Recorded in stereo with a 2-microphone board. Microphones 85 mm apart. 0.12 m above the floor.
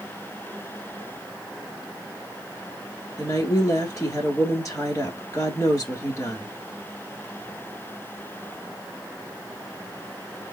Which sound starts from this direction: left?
A woman speaking, at 3.2 s.